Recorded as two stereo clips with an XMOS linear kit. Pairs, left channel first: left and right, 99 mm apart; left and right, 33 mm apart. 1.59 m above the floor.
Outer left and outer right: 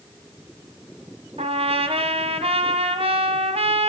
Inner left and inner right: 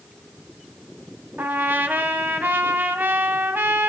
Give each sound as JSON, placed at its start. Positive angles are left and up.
{"t": 1.4, "sound": "a trumpet", "side_deg": -85, "distance_m": 1.3}